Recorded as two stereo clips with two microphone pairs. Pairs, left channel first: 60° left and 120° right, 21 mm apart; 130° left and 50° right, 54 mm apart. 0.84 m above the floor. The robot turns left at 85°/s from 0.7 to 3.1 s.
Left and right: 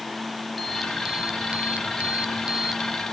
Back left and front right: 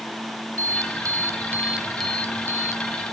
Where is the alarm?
30° right; by 2.8 s 150° left.